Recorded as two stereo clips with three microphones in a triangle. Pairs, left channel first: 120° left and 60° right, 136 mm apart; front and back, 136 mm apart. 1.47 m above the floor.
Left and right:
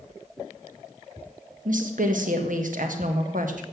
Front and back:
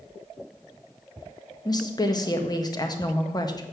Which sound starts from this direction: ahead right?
A woman speaking, at 1.6 s.